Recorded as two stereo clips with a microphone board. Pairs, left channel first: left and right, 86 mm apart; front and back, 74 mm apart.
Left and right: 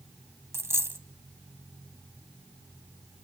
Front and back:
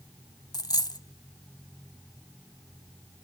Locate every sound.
0.5 s a dropped coin: 30° right, 0.6 m